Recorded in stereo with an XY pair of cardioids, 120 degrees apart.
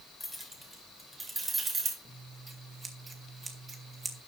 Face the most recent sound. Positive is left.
turn(degrees=-30)